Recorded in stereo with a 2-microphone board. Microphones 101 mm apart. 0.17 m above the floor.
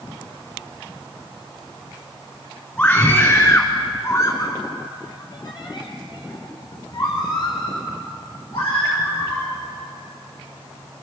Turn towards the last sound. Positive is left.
turn(degrees=40)  # may be behind; listen again after turning